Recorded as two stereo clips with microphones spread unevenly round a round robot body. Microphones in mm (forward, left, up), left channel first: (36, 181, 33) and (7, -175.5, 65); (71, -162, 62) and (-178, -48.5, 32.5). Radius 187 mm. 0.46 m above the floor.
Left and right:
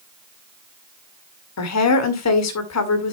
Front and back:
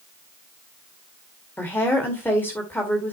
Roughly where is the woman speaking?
Ahead left.